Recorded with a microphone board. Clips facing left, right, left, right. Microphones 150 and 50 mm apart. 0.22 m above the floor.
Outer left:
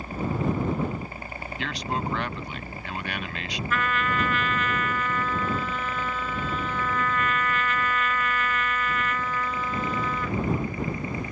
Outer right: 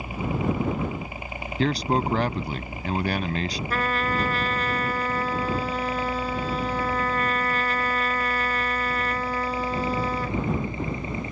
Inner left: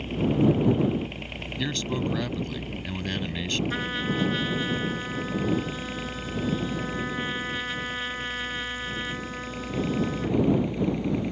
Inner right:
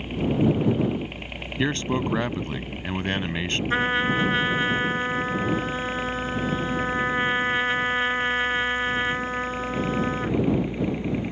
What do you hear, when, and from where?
0.0 s a helicopter: 10° right (ahead or behind); by 11.3 s 25° right (ahead or behind)
1.6 s a man speaking: 40° right (ahead or behind)
3.7 s a trumpet: 40° right (ahead or behind)